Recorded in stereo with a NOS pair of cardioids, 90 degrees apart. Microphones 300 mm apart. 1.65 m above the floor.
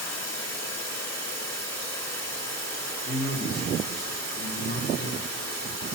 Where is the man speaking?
35° left, 1.8 m.